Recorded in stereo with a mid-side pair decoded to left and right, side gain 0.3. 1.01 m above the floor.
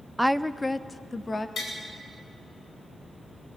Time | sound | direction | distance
0.2 | a woman speaking | 5° right | 0.6 m
1.6 | tapping | 70° left | 9.5 m